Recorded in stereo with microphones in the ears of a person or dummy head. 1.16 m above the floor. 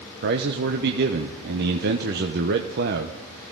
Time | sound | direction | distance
0.2 | a man speaking | 50° right (ahead or behind) | 0.8 m